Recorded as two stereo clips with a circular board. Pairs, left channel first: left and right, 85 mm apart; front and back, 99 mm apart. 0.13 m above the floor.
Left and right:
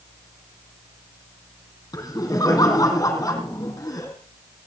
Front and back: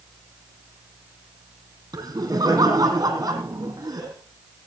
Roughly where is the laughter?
Behind left.